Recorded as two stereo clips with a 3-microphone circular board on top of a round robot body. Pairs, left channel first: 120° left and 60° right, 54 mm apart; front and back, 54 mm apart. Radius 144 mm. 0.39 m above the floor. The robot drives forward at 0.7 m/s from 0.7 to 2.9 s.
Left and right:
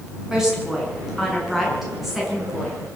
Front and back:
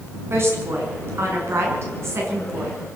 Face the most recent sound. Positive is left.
turn(degrees=-150)